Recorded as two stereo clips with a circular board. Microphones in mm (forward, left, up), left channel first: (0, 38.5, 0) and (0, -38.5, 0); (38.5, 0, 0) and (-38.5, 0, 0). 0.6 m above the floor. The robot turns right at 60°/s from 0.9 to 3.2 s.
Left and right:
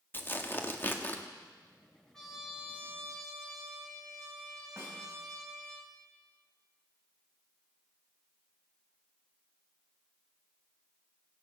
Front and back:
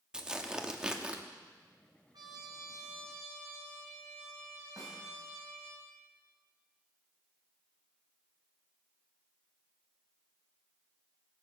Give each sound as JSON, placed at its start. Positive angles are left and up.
{"t": 0.1, "sound": "tearing paper", "azimuth_deg": 110, "distance_m": 1.0}
{"t": 2.1, "sound": "a trumpet", "azimuth_deg": 170, "distance_m": 3.0}
{"t": 4.8, "sound": "a snare drum", "azimuth_deg": -145, "distance_m": 3.5}